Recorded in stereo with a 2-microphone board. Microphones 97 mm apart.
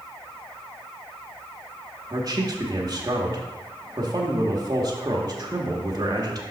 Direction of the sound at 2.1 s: 40° right (ahead or behind).